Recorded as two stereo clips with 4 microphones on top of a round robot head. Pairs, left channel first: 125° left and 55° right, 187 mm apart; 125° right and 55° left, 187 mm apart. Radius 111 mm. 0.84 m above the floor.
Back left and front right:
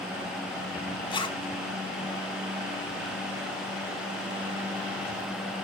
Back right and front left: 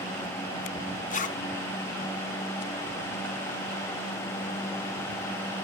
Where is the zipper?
170° right, 1.5 m.